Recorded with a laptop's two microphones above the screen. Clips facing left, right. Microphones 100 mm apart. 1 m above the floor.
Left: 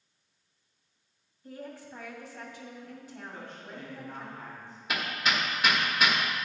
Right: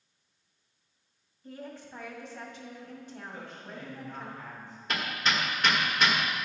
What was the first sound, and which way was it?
A woman speaking, 10° left (ahead or behind).